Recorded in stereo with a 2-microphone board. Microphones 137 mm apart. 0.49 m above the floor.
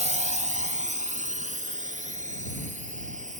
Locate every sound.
0.0 s a drone: 55° right (ahead or behind); by 3.4 s 60° right (ahead or behind)